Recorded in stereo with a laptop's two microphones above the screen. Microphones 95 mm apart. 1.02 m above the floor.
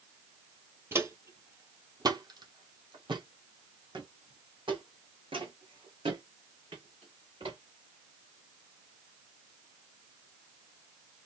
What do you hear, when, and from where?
0.9 s footsteps: 25° right (ahead or behind), 1.2 m; by 7.6 s 70° right (ahead or behind), 4.5 m